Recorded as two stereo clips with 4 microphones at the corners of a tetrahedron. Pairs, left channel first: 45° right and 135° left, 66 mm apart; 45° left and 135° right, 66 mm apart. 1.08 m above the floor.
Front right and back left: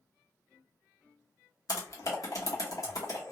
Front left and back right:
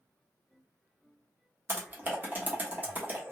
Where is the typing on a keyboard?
75° right, 1.0 m.